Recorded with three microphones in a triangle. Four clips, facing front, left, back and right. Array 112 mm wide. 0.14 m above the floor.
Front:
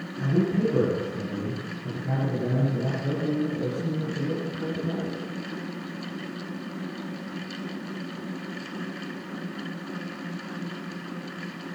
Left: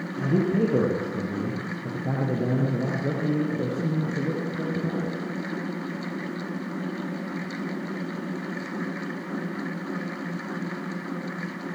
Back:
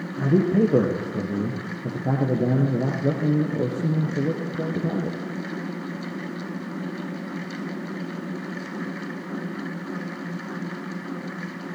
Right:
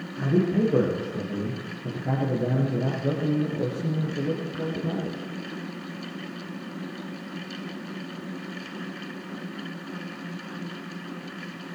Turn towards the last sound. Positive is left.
turn(degrees=180)